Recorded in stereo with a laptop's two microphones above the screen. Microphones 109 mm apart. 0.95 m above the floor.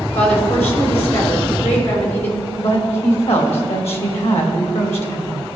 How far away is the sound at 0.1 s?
About 3.5 m.